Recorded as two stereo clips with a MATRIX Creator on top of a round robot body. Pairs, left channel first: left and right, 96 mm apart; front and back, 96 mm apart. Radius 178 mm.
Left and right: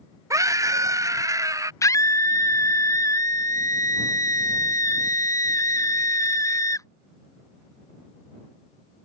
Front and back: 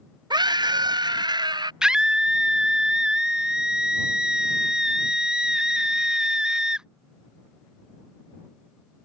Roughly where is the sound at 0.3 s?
Behind right.